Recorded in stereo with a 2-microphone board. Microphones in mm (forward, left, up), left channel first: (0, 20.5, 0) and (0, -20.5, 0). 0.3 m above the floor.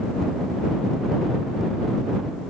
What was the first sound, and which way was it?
Only background noise.